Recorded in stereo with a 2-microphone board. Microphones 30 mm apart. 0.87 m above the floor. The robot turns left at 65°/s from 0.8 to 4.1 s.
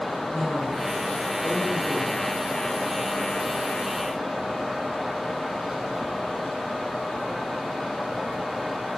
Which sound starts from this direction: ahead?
A woman speaking, at 0.1 s.